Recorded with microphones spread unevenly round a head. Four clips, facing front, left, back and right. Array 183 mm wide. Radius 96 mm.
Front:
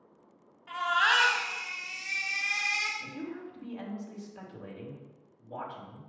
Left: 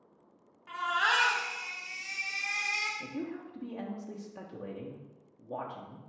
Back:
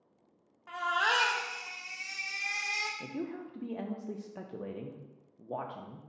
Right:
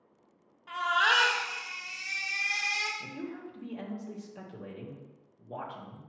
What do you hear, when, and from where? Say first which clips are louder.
0.7 s a baby crying: right 3 dB, front 3 dB; 175° left, 1.2 m
3.0 s a woman speaking: left 2 dB, back 1 dB; 175° left, 1.1 m